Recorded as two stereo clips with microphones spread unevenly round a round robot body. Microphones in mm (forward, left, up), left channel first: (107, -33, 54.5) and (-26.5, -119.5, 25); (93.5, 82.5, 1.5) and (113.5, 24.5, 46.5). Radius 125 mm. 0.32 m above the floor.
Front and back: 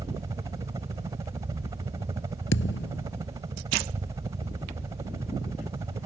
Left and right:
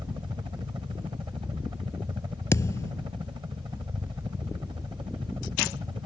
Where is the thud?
65° left.